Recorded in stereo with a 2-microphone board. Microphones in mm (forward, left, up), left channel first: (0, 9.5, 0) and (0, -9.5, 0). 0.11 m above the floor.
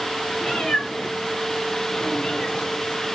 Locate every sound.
0.4 s a cat meowing: 50° left (ahead or behind), 6 m; by 2.7 s 65° left (ahead or behind), 5.5 m